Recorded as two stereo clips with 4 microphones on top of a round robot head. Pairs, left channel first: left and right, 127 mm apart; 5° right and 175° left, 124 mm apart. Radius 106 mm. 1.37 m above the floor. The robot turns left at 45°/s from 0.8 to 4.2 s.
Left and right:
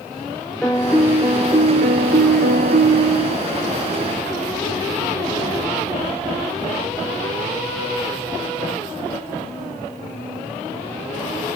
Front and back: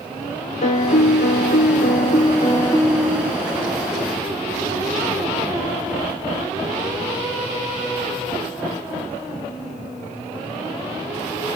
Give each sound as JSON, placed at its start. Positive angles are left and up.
{"t": 0.6, "sound": "a piano", "azimuth_deg": 5, "distance_m": 1.4}